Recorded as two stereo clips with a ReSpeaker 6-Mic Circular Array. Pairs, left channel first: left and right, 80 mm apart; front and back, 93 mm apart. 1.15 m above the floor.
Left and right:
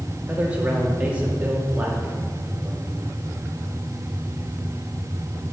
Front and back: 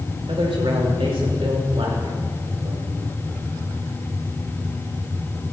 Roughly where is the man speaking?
Behind.